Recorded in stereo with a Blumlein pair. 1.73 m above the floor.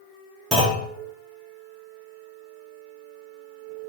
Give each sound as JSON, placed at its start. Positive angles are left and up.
{"t": 0.5, "sound": "a clunk", "azimuth_deg": -10, "distance_m": 2.5}